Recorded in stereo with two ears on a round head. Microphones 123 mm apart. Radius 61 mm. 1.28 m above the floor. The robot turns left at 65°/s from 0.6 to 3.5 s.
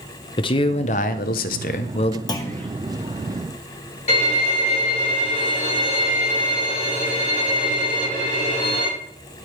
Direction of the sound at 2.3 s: 30° left (ahead or behind).